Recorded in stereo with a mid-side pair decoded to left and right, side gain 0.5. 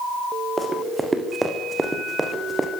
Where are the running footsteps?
15° right, 7 m.